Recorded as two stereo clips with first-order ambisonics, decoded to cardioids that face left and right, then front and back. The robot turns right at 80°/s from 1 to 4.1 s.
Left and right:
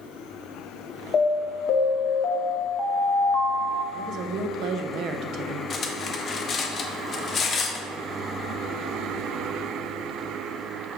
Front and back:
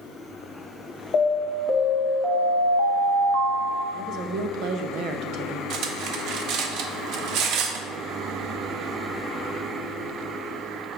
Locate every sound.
1.1 s an alarm: 30° left, 0.8 m; by 3.8 s 110° right, 0.8 m
3.9 s a woman speaking: 150° right, 0.7 m; by 5.6 s 135° right, 0.7 m
5.7 s cutlery clinking: 150° left, 0.8 m